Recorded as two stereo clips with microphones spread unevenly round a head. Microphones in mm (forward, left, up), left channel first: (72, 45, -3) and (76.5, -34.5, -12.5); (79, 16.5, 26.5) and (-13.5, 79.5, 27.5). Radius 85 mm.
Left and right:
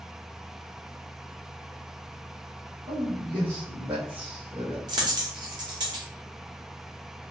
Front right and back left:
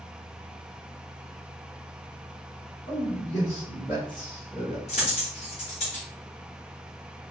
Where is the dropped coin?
70° right, 1.1 m.